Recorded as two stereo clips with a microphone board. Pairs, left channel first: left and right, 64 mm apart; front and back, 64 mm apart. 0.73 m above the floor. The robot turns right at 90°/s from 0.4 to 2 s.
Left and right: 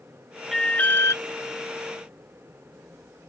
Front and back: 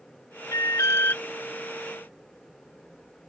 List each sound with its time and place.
0.5 s an alarm: straight ahead; by 1.2 s 65° left